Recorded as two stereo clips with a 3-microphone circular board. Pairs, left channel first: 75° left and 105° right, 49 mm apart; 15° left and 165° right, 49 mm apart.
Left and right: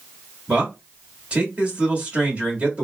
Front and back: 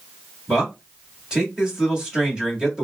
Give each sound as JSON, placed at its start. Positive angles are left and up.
{"t": 0.5, "sound": "a man speaking", "azimuth_deg": -120, "distance_m": 1.3}